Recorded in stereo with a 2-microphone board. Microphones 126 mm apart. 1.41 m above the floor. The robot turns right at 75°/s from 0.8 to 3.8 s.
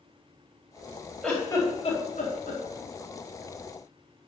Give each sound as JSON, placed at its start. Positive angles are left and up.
{"t": 1.2, "sound": "a giggle", "side_deg": 0, "distance_m": 4.0}